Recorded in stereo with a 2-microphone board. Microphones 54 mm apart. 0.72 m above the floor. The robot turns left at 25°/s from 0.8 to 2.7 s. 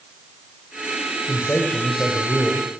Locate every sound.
1.2 s a man speaking: 55° left, 3.5 m; by 2.7 s 20° left, 3.5 m